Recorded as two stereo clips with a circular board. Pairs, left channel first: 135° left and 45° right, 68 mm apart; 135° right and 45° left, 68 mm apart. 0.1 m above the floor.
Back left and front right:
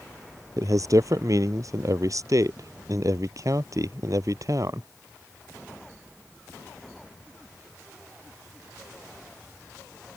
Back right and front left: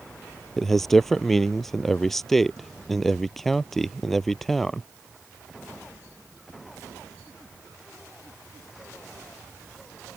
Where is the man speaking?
50° right.